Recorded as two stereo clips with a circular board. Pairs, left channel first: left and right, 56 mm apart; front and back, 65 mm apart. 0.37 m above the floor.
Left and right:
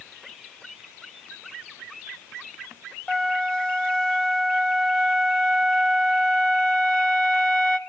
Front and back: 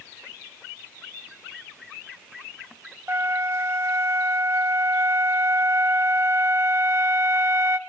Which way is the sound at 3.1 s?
155° left.